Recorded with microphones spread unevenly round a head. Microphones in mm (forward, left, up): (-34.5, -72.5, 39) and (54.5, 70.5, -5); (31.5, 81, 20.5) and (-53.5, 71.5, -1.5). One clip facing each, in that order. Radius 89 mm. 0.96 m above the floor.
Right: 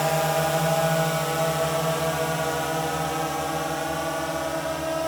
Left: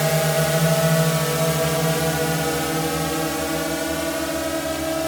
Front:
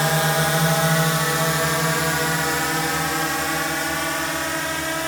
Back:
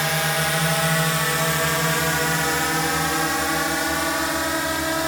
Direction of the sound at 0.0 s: 55° left.